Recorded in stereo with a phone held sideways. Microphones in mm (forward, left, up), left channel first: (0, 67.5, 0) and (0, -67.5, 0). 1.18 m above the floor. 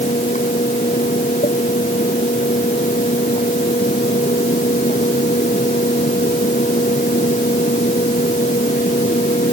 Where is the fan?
60° left (ahead or behind).